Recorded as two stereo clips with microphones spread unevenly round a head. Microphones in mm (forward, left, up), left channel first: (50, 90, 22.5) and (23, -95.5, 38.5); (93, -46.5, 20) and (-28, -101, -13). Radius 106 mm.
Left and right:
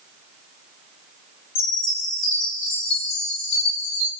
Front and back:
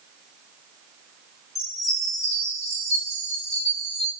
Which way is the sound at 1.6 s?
100° left.